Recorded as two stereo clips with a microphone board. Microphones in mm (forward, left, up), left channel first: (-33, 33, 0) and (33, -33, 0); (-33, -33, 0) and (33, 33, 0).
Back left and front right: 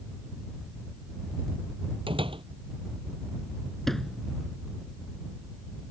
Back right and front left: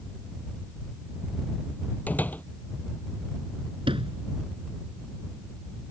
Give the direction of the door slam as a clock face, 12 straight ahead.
2 o'clock.